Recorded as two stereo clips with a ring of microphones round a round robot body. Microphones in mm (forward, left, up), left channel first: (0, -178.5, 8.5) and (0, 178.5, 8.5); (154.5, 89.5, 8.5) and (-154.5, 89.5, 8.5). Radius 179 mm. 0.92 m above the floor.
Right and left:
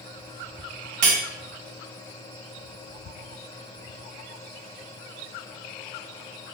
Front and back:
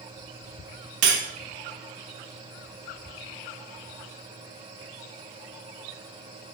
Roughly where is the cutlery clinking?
Behind left.